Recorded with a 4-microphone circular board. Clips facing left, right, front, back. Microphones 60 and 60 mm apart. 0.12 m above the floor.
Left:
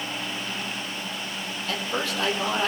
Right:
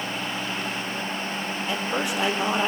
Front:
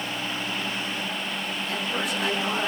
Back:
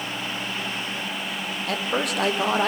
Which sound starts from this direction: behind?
A man speaking, at 1.7 s.